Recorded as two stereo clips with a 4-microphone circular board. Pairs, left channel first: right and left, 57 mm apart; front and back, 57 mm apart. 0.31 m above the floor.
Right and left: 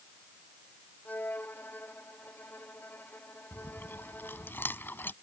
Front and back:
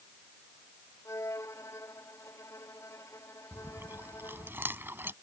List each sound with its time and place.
1.1 s a violin: 30° right
3.5 s chewing: 135° right